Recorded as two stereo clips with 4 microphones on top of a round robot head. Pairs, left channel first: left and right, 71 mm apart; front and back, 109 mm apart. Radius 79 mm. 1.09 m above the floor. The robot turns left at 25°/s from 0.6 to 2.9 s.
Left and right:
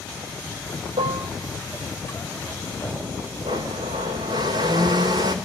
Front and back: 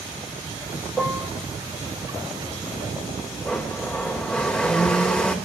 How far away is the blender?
About 1.1 m.